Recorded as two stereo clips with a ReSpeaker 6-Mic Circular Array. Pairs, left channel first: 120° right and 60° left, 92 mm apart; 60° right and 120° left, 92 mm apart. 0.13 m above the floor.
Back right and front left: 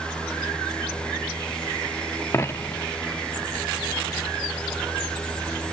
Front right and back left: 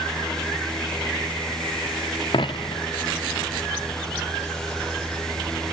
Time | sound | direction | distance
2.3 | a dropped coin | 65° right | 0.7 m